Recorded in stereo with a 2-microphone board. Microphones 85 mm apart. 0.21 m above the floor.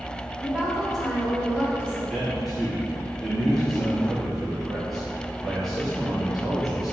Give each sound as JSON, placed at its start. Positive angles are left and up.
{"t": 0.4, "sound": "a woman speaking", "side_deg": -20, "distance_m": 1.1}
{"t": 2.1, "sound": "a man speaking", "side_deg": 0, "distance_m": 1.4}